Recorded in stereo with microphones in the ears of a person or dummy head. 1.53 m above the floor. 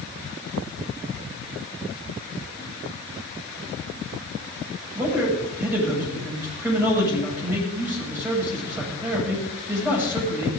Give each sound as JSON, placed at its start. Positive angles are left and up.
{"t": 5.0, "sound": "a man speaking", "side_deg": -15, "distance_m": 7.5}